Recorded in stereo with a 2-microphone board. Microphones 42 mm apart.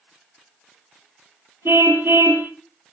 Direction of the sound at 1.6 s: 75° right (ahead or behind).